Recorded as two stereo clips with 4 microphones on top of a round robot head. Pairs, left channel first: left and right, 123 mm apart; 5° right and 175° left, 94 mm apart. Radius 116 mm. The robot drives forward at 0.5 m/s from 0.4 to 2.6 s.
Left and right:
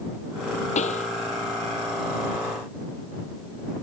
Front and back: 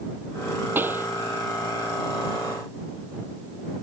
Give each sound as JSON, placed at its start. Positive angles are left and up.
{"t": 0.8, "sound": "a pop", "azimuth_deg": 110}